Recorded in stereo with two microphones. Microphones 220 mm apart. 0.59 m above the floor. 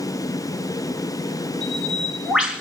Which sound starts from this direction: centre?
A bird, at 1.6 s.